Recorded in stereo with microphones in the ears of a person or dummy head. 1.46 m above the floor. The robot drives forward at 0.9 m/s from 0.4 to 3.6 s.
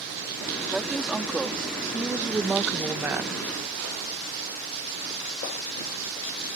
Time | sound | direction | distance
0.7 | a woman speaking | 5° right (ahead or behind) | ?